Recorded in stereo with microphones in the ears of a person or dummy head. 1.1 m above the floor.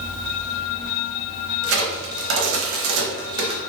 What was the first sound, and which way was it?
A crack, 70° right (ahead or behind).